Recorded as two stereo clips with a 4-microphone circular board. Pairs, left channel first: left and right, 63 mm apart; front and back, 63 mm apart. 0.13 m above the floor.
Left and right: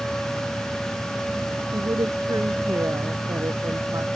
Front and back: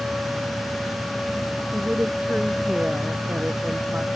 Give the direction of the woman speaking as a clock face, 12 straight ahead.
4 o'clock.